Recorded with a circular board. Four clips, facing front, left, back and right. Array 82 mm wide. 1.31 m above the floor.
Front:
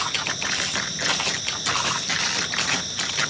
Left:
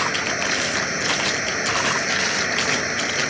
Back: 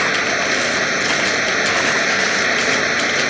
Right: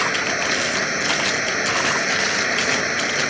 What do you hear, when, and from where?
0.0 s running water: 175° right